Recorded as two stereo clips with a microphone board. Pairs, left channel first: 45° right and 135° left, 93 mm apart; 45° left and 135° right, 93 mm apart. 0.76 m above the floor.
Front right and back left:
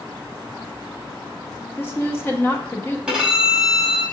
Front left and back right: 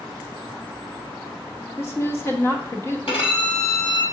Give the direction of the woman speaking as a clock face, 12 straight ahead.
12 o'clock.